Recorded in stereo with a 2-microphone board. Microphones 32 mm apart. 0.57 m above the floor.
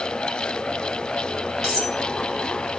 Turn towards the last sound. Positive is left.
turn(degrees=-5)  # may be behind; listen again after turning